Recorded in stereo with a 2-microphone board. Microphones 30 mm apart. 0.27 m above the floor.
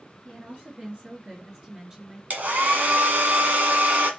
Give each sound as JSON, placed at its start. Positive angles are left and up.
{"t": 0.2, "sound": "a woman speaking", "side_deg": -50, "distance_m": 4.0}
{"t": 2.3, "sound": "a hair dryer", "side_deg": -65, "distance_m": 1.9}